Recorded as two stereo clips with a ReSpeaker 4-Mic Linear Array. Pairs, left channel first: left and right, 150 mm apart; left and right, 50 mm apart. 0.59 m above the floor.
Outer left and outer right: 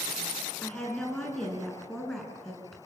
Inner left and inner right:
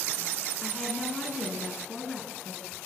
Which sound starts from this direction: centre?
A woman speaking, at 0.6 s.